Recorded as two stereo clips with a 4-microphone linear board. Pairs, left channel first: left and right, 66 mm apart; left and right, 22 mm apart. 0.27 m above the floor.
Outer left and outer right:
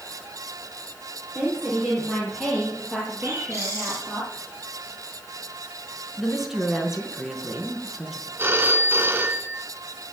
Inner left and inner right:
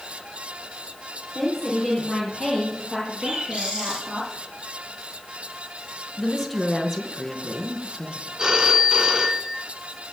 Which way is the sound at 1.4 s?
20° right (ahead or behind).